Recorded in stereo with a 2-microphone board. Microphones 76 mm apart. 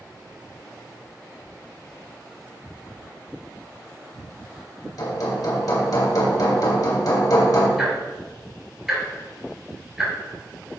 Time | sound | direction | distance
5.0 | hammering | 55° left (ahead or behind) | 2.5 m
7.8 | ticking | 5° right (ahead or behind) | 4 m